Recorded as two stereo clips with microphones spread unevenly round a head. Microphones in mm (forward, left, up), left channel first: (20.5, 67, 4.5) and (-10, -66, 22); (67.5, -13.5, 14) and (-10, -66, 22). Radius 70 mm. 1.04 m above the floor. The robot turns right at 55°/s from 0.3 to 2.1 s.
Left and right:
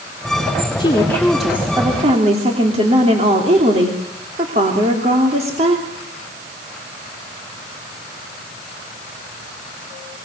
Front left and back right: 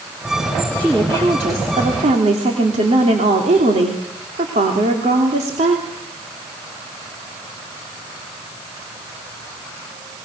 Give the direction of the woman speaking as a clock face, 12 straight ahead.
8 o'clock.